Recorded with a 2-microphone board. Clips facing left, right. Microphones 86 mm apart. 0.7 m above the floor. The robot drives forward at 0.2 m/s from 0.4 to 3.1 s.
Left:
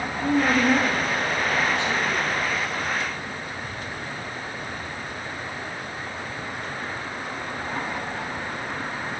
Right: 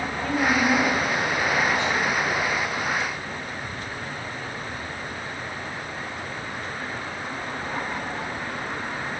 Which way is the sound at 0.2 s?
25° left (ahead or behind).